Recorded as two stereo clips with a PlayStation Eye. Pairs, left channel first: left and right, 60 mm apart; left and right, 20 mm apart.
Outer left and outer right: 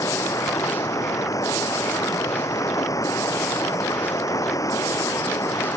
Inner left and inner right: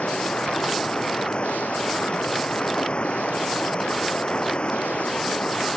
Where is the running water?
70° left (ahead or behind).